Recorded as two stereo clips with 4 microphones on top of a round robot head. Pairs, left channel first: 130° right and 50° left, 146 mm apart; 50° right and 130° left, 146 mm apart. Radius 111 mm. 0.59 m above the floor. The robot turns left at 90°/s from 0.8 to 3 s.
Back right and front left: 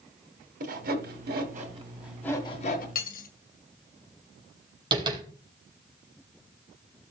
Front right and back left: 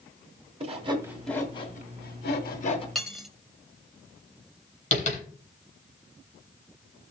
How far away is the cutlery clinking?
About 1.4 m.